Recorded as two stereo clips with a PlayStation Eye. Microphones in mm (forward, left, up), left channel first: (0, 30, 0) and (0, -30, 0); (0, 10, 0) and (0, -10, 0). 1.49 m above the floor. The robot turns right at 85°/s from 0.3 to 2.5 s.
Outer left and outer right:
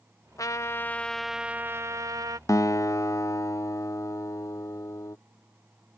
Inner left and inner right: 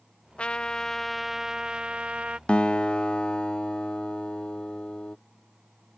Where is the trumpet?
105° left; by 2.4 s 80° right.